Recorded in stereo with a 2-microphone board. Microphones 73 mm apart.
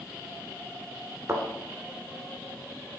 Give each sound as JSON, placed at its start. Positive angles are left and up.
{"t": 1.3, "sound": "a thud", "side_deg": -35, "distance_m": 1.6}